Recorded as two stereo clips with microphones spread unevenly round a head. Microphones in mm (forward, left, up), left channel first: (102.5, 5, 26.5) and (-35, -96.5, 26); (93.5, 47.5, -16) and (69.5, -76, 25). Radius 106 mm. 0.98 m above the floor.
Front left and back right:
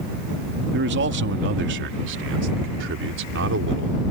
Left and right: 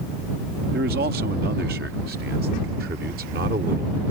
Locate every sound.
0.7 s a man speaking: 135° right; by 4.0 s 155° right